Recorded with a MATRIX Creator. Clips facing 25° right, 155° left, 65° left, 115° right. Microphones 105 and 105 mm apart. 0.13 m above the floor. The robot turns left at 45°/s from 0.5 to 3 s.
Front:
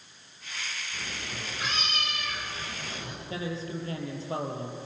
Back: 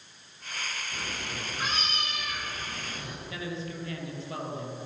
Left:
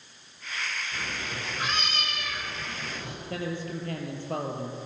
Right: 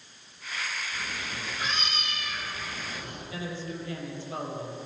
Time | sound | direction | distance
0.9 | a cat meowing | 140° left | 8.5 m
3.3 | a man speaking | 35° left | 4 m